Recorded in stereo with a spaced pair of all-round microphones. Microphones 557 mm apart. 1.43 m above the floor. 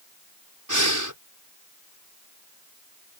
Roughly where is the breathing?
Right.